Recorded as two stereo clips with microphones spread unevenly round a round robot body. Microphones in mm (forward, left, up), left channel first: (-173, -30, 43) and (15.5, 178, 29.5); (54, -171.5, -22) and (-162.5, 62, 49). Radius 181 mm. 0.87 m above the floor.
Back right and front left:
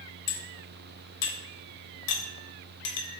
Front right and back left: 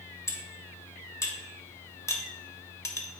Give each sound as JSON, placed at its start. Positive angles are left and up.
{"t": 0.3, "sound": "cutlery clinking", "azimuth_deg": -130, "distance_m": 0.7}